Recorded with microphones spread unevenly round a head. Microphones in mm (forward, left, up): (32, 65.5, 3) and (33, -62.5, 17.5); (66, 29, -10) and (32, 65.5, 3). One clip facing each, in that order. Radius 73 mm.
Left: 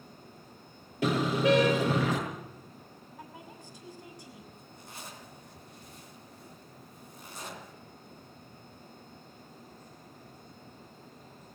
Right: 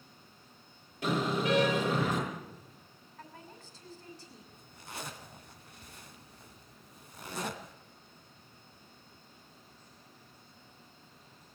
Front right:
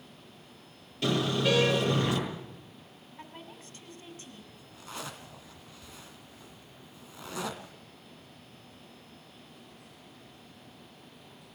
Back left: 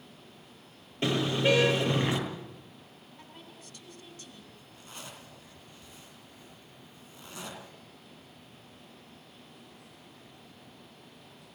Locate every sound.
1.0 s a car horn: 75° left, 9.5 m
3.2 s a woman speaking: 15° left, 7 m
4.5 s a zipper: 70° right, 2.5 m